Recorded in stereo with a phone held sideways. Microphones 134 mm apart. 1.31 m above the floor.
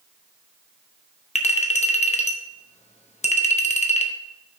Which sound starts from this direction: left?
A clink, at 1.4 s.